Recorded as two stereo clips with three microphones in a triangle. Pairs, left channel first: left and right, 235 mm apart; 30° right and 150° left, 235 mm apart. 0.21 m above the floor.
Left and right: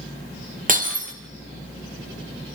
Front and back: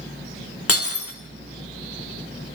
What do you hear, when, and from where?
0.7 s breaking glass: 35° right, 4 m